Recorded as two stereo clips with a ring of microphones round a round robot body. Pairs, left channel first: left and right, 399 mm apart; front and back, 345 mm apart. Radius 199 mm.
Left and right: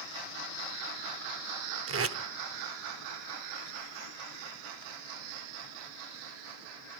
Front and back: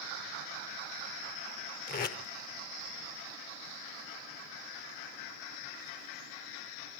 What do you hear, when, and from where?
1.9 s tape being pulled: 55° right, 0.7 m